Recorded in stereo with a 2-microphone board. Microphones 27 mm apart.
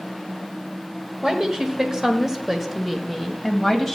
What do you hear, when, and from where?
1.2 s a woman speaking: 30° right (ahead or behind), 1.4 m; by 4.0 s 5° left (ahead or behind), 2 m